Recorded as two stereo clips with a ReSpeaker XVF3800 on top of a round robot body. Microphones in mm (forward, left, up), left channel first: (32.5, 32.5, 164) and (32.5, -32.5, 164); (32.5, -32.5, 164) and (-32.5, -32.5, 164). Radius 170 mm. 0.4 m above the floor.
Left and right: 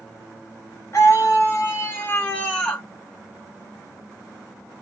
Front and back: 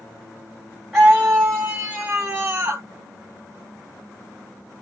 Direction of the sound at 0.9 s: 85° left.